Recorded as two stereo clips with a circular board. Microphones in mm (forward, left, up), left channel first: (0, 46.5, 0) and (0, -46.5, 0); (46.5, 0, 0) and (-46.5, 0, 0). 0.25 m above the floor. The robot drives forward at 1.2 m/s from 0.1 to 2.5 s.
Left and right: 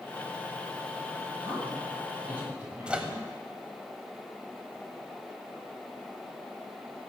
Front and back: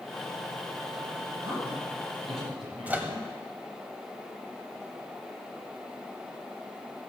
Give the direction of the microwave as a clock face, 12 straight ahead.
5 o'clock.